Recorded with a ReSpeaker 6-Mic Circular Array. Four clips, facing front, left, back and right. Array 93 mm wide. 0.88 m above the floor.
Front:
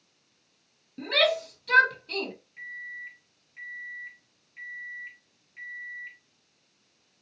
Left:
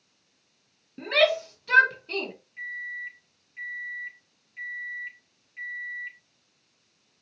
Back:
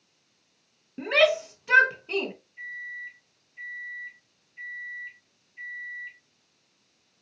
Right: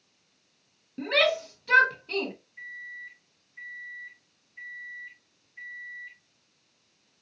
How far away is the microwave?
About 1.2 m.